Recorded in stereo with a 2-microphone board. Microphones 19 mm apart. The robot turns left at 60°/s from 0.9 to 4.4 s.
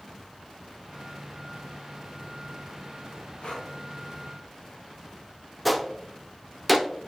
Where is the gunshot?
5° right (ahead or behind), 0.7 m.